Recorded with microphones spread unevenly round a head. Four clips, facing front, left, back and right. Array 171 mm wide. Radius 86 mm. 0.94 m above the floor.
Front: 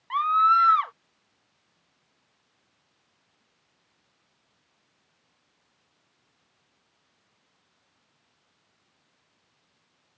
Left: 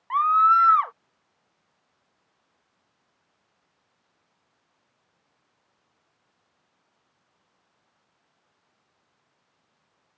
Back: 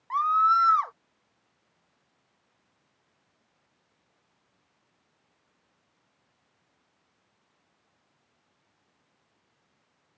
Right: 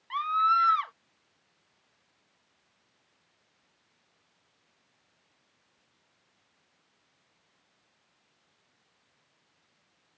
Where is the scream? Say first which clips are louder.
Left 7 dB, front 2 dB; 100° left.